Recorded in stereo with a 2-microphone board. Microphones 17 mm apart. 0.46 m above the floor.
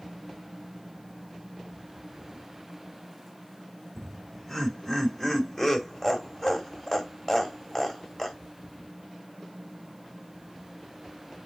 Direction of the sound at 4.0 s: 30° left (ahead or behind).